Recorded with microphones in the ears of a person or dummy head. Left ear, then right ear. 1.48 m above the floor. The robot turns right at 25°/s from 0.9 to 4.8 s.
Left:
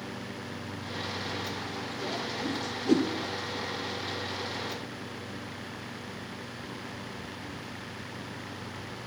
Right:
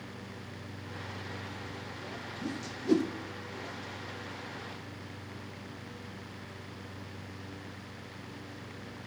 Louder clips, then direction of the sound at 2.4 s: Left 5 dB; 15° right (ahead or behind).